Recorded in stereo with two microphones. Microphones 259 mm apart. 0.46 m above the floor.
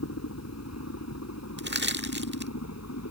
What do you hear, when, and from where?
0.0 s a helicopter: 70° left (ahead or behind); by 3.1 s 75° left (ahead or behind)
1.6 s crushing: 40° right (ahead or behind)